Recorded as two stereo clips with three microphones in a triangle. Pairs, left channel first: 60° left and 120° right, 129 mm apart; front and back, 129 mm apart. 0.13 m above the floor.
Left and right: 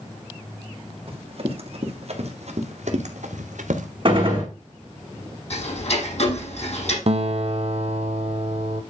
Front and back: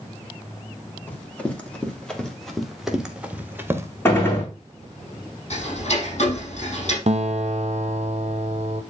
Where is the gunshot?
70° right, 4.5 m.